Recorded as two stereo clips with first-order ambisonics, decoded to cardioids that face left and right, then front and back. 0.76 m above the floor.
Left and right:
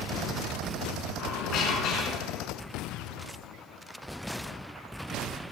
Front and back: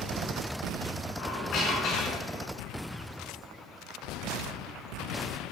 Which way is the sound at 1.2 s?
40° left.